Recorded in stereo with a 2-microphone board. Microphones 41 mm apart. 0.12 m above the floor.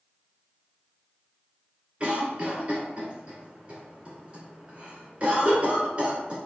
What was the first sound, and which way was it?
A cough, 30° right (ahead or behind).